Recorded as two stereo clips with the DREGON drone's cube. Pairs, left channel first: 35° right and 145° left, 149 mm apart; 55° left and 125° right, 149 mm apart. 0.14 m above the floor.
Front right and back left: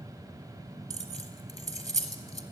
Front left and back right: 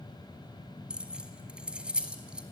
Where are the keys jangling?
45° right, 1.0 m.